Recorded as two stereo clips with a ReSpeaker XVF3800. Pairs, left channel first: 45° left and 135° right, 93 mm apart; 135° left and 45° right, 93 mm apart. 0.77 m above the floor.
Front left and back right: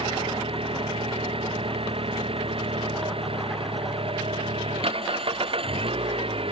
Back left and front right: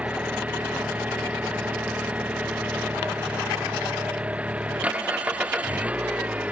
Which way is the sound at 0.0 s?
120° right.